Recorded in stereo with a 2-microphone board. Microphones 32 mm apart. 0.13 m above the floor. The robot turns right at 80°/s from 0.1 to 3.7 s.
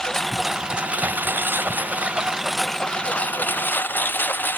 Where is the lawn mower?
165° left; by 4.6 s 90° left.